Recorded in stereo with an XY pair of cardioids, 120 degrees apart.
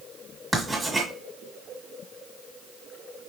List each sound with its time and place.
0.5 s writing: 10° right, 1.4 m